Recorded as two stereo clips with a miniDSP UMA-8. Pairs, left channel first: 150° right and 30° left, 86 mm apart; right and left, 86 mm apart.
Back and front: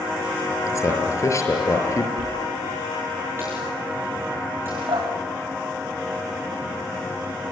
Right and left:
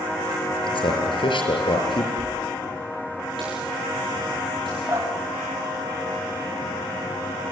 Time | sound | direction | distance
0.7 | a man speaking | 95° right | 5.5 m
2.2 | a dropped coin | 95° left | 9 m
4.9 | dripping | 35° left | 6.5 m